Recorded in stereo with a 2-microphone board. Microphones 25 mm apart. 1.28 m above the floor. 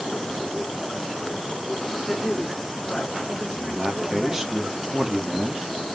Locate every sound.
2.1 s a woman speaking: 10° left (ahead or behind), 4.5 m; by 4.5 s 5° right (ahead or behind), 6.5 m
3.5 s a man speaking: 10° right (ahead or behind), 3 m